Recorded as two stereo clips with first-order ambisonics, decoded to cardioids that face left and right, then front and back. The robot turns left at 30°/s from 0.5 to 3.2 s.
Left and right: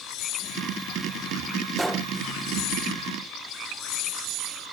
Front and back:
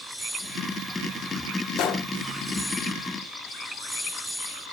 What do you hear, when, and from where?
1.8 s a gunshot: 10° right, 0.7 m; by 2.1 s 20° right, 0.7 m